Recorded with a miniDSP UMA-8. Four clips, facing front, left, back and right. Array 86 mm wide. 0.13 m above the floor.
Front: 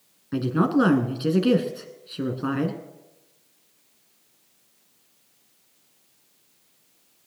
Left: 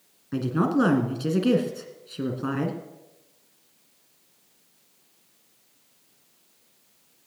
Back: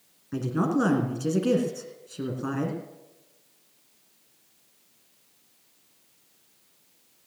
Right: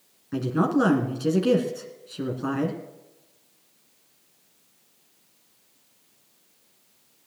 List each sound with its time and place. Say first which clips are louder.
0.3 s a woman speaking: even, front 4 dB; 10° left, 1.6 m